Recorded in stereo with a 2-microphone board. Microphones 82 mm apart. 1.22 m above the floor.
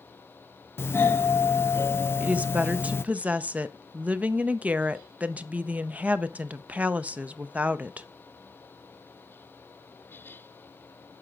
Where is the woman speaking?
15° right (ahead or behind), 0.5 m.